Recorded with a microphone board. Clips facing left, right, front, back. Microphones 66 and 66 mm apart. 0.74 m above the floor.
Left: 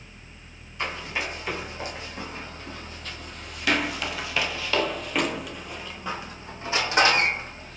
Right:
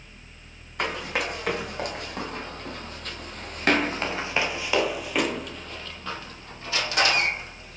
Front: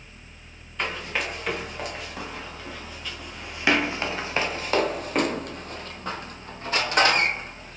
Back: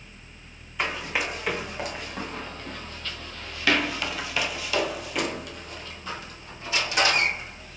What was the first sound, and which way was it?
Running footsteps, 100° right.